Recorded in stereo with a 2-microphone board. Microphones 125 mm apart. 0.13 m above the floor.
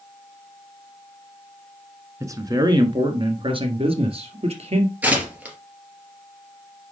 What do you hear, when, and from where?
2.2 s a man speaking: 25° right (ahead or behind), 1.3 m; by 4.9 s 50° right (ahead or behind), 2.5 m
5.0 s tearing paper: 10° right (ahead or behind), 2.5 m